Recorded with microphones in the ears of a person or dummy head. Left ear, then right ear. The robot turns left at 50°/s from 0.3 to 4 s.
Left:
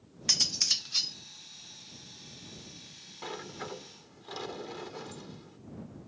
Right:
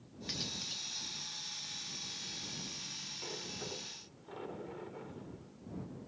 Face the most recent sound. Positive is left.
turn(degrees=90)